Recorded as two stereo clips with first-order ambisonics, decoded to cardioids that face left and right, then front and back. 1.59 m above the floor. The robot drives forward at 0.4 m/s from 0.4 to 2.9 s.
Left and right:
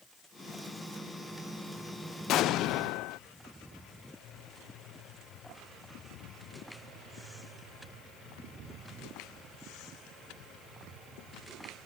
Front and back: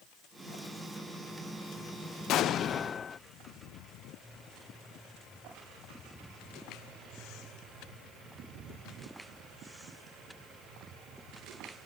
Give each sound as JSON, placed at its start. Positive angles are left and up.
{"t": 2.3, "sound": "an explosion", "azimuth_deg": 45}